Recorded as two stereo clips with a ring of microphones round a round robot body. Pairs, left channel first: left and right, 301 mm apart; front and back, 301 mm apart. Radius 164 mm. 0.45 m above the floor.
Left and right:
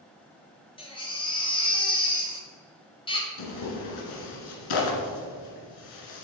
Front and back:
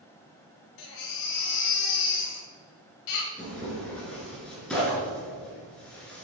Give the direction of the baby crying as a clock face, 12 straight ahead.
11 o'clock.